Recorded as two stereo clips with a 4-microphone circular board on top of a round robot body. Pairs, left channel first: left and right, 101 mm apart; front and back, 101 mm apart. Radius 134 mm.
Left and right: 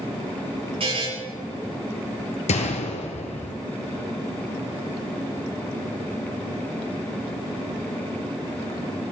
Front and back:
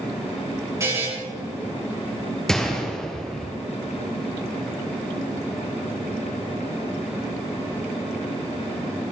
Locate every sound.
0.8 s a buzzer: 120° right, 8.5 m
2.5 s a gunshot: 85° left, 1.9 m